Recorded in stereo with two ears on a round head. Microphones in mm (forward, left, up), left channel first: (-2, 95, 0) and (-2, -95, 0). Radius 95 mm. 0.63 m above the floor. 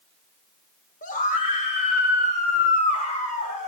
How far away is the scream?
About 2 m.